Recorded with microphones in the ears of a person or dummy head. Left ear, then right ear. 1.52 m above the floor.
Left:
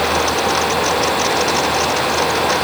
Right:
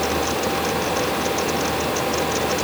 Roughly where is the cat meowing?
No cat meowing in this recording.